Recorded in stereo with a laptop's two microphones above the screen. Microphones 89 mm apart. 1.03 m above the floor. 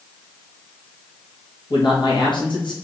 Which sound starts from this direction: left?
A man speaking, at 1.7 s.